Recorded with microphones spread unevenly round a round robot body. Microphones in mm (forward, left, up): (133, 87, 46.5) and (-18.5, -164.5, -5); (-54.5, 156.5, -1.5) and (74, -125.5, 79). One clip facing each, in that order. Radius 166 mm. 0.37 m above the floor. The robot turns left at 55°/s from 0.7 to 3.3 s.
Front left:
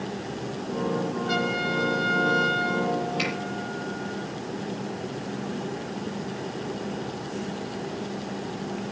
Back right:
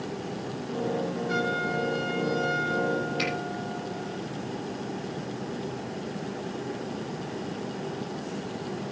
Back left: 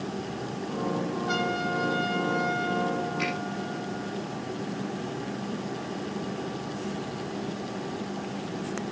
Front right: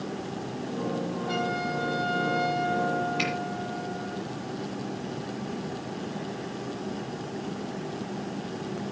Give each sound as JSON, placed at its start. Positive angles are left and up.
{"t": 1.3, "sound": "a trumpet", "azimuth_deg": 50, "distance_m": 5.5}
{"t": 3.2, "sound": "a finger snap", "azimuth_deg": -35, "distance_m": 8.0}